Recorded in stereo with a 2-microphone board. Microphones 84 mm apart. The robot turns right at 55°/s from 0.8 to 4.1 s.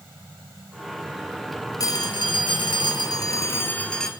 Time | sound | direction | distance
1.8 | a phone ringing | 50° left | 1.6 m